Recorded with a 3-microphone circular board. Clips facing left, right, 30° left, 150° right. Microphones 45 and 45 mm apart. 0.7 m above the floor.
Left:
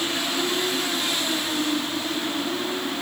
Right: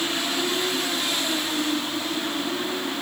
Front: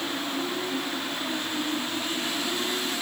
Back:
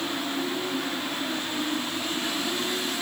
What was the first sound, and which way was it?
Only background noise.